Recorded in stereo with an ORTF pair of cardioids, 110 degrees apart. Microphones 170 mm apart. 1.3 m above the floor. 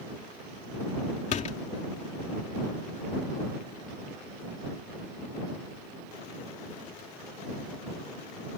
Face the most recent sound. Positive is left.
turn(degrees=45)